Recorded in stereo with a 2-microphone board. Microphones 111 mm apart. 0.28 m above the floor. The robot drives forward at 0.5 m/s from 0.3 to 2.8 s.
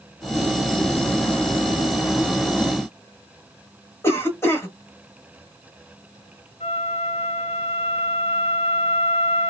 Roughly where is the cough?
Left.